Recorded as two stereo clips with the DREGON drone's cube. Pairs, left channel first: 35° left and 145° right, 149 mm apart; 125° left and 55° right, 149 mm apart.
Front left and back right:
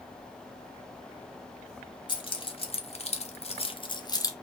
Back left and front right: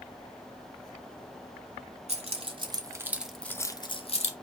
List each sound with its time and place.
2.1 s keys jangling: 20° right, 0.9 m; by 4.3 s 100° left, 0.7 m